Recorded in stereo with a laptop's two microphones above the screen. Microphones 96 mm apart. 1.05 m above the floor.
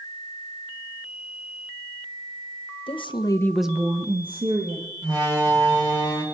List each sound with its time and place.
2.9 s a woman speaking: 60° left (ahead or behind), 1.3 m; by 4.9 s 70° right (ahead or behind), 2 m
5.0 s a door slam: 45° right (ahead or behind), 3.5 m